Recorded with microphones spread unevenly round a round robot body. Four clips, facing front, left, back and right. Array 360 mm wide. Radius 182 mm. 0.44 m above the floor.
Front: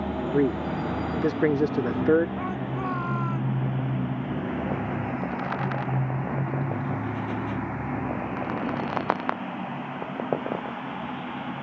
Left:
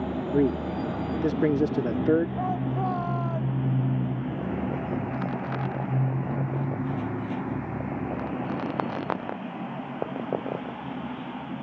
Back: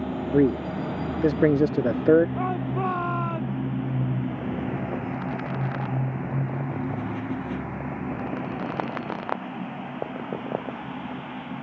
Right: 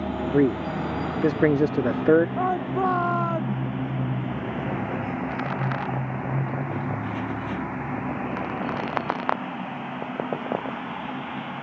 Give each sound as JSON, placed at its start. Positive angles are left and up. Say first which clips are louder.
{"t": 0.3, "sound": "a man speaking", "louder": "right 3 dB, back 3 dB", "azimuth_deg": -160}
{"t": 2.4, "sound": "a shout", "louder": "right 4 dB, back 3 dB", "azimuth_deg": -130}